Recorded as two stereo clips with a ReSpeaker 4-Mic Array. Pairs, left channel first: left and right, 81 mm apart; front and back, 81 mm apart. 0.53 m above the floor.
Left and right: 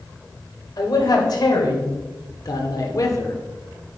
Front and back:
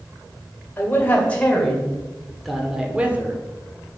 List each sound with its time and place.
0.8 s a man speaking: 65° left, 2.5 m; by 3.4 s 125° left, 1.3 m